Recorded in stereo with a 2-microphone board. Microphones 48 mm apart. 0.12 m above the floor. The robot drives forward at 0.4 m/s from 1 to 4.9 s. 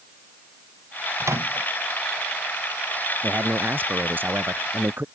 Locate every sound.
1.2 s a microwave: 80° right
3.2 s a man speaking: 40° right (ahead or behind); by 5.0 s 45° right (ahead or behind)